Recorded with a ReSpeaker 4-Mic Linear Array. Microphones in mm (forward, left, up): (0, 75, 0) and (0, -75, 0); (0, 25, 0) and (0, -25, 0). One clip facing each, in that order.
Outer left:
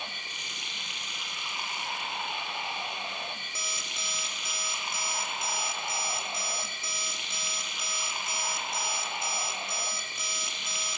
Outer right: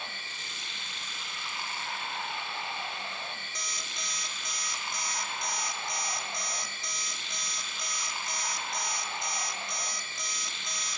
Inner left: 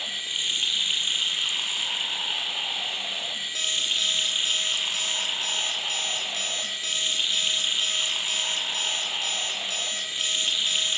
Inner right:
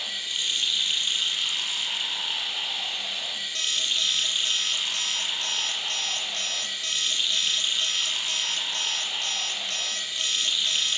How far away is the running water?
About 3.5 m.